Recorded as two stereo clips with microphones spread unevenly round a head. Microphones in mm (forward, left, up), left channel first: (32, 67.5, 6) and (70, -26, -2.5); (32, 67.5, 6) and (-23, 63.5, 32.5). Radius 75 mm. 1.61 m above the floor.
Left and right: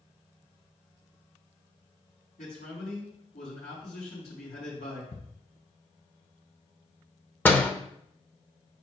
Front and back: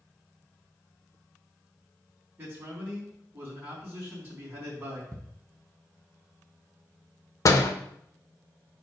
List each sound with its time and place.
2.4 s a man speaking: 135° left, 4 m
5.1 s ticking: 150° left, 1.1 m
7.5 s a door slam: 45° left, 0.9 m